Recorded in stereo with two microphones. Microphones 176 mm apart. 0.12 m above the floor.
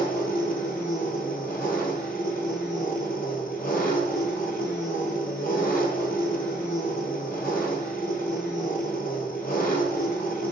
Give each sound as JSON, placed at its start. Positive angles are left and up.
{"t": 0.0, "sound": "an engine running", "side_deg": 60, "distance_m": 0.8}